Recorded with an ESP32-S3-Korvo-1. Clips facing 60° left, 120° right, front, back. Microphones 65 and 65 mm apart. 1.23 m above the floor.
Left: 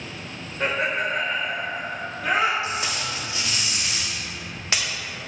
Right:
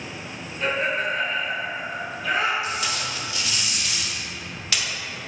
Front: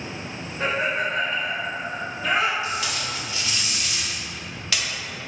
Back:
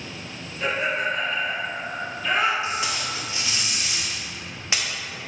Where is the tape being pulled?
115° left, 0.7 m.